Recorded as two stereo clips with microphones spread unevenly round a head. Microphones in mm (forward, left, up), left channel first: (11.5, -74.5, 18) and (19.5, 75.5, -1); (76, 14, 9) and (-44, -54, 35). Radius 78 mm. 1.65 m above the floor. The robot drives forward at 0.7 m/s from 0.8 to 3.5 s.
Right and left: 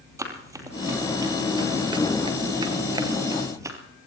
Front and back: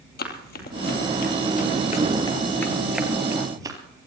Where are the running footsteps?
15° left, 3 m; by 3.8 s 160° left, 2.5 m.